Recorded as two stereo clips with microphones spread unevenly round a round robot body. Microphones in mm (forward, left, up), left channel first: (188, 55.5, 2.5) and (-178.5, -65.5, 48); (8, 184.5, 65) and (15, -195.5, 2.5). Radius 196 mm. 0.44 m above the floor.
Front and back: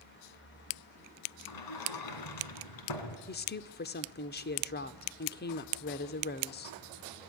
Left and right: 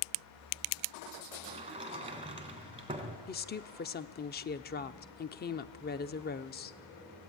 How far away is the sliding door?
About 3 m.